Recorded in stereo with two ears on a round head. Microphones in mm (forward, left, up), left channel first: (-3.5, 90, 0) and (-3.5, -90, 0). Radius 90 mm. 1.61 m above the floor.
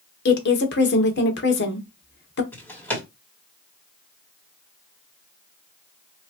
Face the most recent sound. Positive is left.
turn(degrees=10)  # may be behind; listen again after turning